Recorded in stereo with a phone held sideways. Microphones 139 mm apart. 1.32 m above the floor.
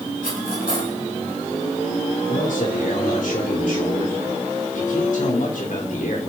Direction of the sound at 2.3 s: 70° left (ahead or behind).